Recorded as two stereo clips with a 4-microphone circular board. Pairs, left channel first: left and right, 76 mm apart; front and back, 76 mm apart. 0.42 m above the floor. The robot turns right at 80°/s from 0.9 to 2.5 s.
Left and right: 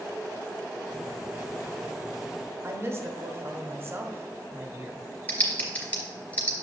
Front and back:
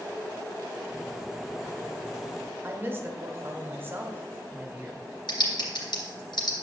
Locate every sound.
2.6 s a woman speaking: 130° right, 1.3 m
5.3 s typing on a keyboard: 15° left, 2.5 m